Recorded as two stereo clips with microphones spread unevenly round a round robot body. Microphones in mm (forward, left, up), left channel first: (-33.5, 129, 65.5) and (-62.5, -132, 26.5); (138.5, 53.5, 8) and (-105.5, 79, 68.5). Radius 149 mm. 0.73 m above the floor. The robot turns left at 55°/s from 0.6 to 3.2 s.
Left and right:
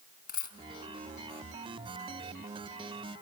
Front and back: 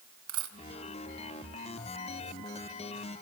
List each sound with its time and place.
0.3 s a dropped coin: 140° left, 3.5 m